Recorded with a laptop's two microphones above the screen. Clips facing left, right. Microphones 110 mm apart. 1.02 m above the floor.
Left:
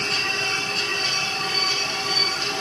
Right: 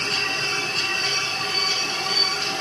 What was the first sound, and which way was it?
Only background noise.